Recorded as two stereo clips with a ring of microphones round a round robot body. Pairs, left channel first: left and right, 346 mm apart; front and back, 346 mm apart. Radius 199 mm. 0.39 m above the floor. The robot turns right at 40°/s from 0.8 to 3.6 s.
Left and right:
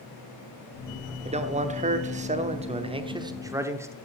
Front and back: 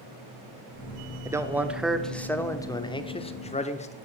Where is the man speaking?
115° right, 0.8 m; by 4.0 s 25° right, 0.8 m.